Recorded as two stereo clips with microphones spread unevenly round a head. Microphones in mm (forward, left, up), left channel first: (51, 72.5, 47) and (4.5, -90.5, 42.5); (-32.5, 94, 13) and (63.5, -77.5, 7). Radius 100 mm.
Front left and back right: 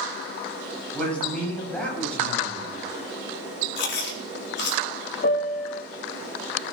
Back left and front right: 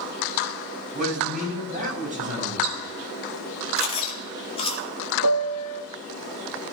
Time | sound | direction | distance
0.9 | a man speaking | 10° right | 8 m
3.8 | chewing | 55° left | 4 m
5.2 | a piano | 125° left | 1.4 m